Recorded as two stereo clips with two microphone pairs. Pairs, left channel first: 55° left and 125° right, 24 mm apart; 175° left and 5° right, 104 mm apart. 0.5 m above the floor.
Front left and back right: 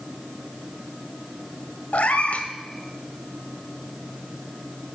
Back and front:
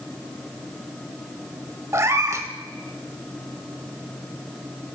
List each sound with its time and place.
1.9 s a cat meowing: 55° left, 0.6 m